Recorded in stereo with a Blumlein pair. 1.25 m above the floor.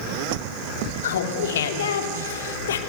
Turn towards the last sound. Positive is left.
turn(degrees=60)